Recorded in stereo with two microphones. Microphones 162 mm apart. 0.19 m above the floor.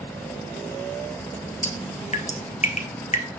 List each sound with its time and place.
1.6 s dripping: 45° left (ahead or behind), 1.3 m